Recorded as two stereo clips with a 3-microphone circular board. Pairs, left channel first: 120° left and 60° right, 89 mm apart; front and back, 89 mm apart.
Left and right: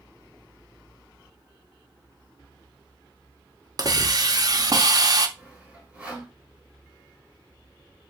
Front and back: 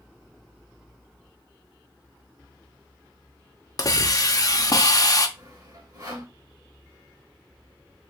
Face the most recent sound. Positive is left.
turn(degrees=-135)